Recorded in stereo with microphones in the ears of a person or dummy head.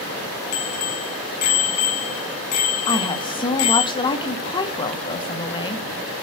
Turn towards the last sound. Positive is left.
turn(degrees=25)  # may be behind; listen again after turning